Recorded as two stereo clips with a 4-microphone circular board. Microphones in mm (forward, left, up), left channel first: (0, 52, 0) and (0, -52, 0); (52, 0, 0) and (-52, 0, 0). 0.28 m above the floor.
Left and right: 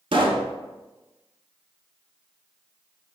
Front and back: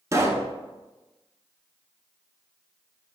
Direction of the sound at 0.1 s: 120° right.